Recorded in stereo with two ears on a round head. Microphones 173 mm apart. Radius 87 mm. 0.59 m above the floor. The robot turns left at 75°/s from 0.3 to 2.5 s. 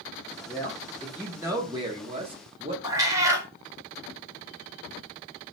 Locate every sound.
0.5 s a man speaking: 20° left (ahead or behind), 0.8 m; by 2.7 s 25° right (ahead or behind), 0.8 m
2.8 s a cat meowing: 20° right (ahead or behind), 0.8 m